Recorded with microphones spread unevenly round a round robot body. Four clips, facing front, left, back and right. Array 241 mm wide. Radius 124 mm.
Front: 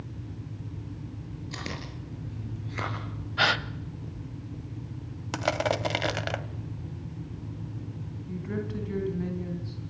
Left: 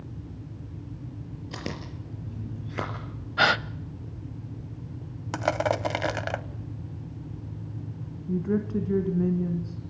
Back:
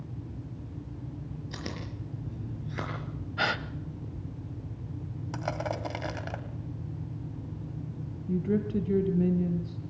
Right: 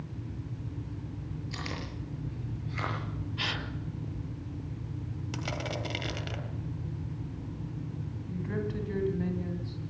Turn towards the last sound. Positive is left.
turn(degrees=125)